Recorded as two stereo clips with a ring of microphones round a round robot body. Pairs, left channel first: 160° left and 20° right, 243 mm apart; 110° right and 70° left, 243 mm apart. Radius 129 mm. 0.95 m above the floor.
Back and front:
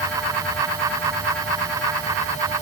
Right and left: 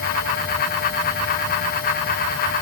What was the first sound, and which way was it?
Only background noise.